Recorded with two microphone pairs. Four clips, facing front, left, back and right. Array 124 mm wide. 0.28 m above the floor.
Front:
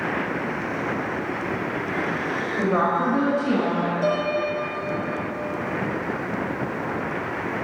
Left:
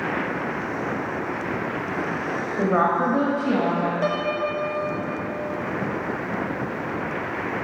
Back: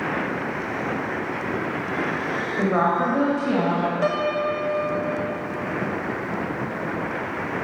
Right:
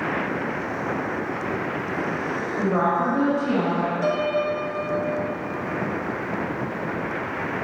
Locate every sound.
2.6 s a woman speaking: 90° left, 0.9 m; by 3.9 s 130° left, 1.5 m
4.0 s a piano: 140° left, 0.9 m